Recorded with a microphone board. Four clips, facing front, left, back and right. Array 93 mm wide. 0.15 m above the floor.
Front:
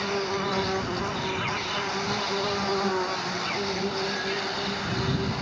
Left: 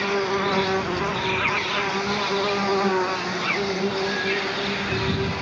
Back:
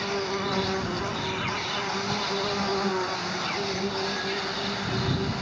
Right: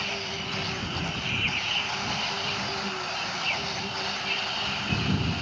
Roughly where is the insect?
Left.